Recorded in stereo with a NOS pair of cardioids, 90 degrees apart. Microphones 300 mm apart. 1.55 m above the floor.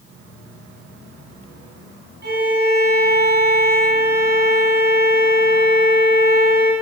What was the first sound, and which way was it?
A violin, 35° right.